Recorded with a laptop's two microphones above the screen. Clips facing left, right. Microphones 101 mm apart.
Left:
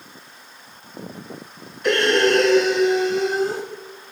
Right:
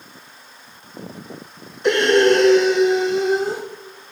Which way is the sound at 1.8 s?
25° right (ahead or behind).